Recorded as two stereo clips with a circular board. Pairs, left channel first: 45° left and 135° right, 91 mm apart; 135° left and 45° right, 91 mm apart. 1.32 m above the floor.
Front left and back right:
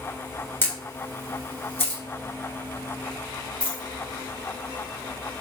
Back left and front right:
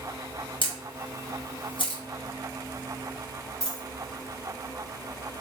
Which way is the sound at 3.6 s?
50° left.